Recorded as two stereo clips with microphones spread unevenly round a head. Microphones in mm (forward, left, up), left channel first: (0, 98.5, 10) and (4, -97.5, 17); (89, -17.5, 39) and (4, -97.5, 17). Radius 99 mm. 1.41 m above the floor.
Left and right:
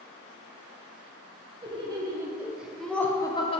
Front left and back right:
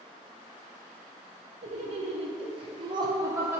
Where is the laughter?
155° right, 1.4 m; by 3.6 s 150° left, 0.9 m.